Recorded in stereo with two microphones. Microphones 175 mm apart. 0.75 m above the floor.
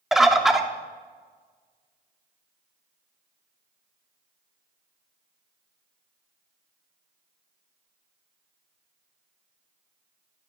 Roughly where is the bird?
Centre.